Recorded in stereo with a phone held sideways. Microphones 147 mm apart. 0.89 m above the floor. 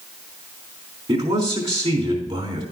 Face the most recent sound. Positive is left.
turn(degrees=-45)  # may be behind; listen again after turning